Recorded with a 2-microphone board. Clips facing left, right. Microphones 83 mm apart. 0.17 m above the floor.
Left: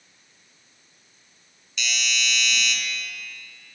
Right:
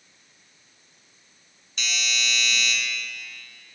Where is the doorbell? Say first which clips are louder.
Left 1 dB; 45° right (ahead or behind), 2 m.